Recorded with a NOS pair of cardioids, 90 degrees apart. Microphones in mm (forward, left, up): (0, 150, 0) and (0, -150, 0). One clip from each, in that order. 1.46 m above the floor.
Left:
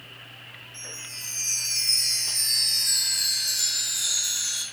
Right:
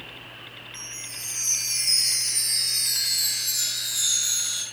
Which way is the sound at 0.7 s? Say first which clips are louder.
Even; 45° right.